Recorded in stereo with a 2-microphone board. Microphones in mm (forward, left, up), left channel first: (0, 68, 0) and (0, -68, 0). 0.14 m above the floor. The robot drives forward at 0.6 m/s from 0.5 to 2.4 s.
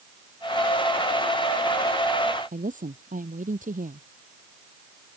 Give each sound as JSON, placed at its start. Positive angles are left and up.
{"t": 2.5, "sound": "a woman speaking", "side_deg": -75}